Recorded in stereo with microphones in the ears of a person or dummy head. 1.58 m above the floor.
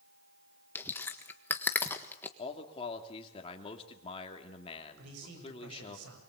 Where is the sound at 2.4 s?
30° left (ahead or behind), 3 m.